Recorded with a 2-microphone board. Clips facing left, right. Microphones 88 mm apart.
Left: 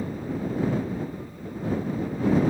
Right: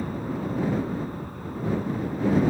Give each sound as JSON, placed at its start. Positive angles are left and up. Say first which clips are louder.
{"t": 0.0, "sound": "an aircraft", "louder": "even", "side_deg": -55}